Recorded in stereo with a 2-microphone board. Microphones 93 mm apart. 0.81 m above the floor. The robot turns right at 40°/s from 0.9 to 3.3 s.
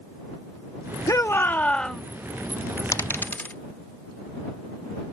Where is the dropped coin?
35° left (ahead or behind); by 3.5 s 20° left (ahead or behind).